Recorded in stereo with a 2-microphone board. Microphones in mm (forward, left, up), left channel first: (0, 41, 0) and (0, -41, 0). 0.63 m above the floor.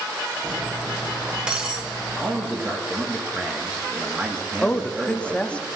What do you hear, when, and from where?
0.4 s cutlery clinking: 10° right (ahead or behind), 1.3 m
2.2 s a man speaking: 20° right (ahead or behind), 1.0 m
4.6 s a woman speaking: 15° left (ahead or behind), 0.6 m